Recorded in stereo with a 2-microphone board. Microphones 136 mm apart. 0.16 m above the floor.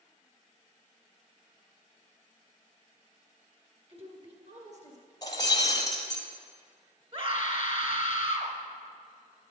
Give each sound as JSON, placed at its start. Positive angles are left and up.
{"t": 3.9, "sound": "a woman speaking", "side_deg": -45, "distance_m": 1.7}
{"t": 5.2, "sound": "breaking glass", "side_deg": 25, "distance_m": 1.7}
{"t": 7.1, "sound": "a scream", "side_deg": -40, "distance_m": 1.8}